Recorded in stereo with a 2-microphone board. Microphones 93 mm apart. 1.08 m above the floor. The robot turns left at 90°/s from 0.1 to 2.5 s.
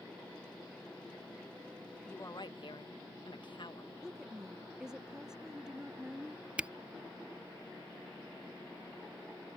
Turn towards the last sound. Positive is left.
turn(degrees=-15)  # may be behind; listen again after turning